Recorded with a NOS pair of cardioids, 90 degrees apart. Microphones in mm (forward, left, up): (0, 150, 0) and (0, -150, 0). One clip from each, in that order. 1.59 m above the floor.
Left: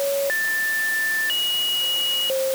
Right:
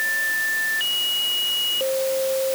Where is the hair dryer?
I don't hear a hair dryer.